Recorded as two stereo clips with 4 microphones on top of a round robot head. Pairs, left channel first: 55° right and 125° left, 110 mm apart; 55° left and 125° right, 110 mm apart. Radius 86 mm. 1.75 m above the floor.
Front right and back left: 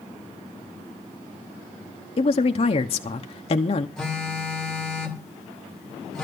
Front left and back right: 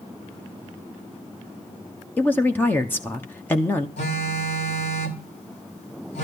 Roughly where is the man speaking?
Ahead.